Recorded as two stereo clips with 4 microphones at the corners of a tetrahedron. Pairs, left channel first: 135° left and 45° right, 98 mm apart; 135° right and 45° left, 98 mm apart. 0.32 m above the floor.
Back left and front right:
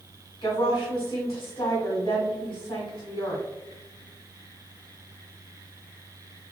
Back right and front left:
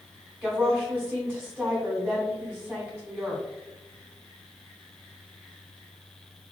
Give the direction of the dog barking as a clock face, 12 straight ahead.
No dog barking in this recording.